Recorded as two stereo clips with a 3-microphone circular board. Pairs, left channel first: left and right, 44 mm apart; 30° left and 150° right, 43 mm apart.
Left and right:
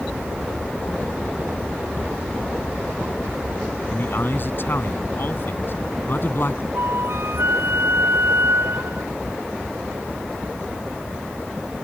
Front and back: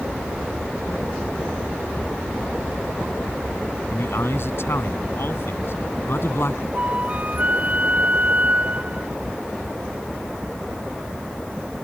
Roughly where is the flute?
Right.